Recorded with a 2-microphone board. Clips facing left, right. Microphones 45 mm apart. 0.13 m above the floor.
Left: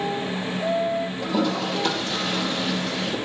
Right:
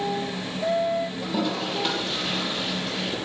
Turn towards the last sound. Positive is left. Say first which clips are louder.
# left 3 dB
turn(degrees=-10)  # may be behind; listen again after turning